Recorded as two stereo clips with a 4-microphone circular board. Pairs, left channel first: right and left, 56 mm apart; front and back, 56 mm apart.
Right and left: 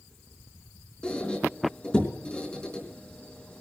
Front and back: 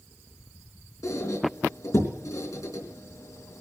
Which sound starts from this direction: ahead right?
A squeak, at 1.0 s.